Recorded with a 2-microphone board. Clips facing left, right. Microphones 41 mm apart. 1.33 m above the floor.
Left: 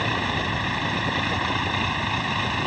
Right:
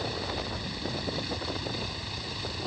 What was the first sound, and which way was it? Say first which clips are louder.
A vehicle: left 9 dB; 60° left (ahead or behind).